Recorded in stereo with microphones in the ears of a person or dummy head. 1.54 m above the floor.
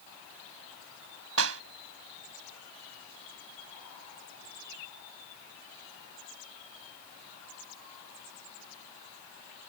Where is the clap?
85° right.